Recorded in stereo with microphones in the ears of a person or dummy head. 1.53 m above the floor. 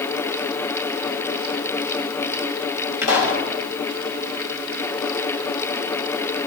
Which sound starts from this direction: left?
A pop, at 3.0 s.